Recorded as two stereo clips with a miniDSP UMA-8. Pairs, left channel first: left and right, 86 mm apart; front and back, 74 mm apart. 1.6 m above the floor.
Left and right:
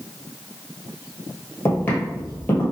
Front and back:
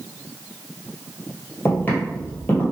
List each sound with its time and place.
1.6 s footsteps: 40° left, 1.9 m